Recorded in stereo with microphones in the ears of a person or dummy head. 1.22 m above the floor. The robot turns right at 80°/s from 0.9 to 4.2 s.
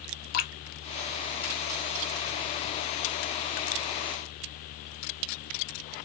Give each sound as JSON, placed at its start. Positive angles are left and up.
{"t": 0.3, "sound": "dripping", "side_deg": 50, "distance_m": 0.8}